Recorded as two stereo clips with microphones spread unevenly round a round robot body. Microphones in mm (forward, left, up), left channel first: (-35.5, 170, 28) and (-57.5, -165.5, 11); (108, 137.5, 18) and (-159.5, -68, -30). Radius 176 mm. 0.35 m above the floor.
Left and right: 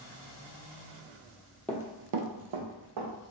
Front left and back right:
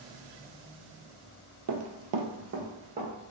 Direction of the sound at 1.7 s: 170° left.